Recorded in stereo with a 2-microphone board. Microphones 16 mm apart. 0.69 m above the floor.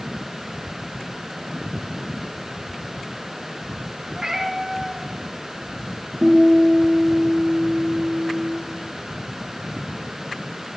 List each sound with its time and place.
4.2 s a cat meowing: 25° right (ahead or behind), 5 m
6.2 s a guitar: 50° right (ahead or behind), 5.5 m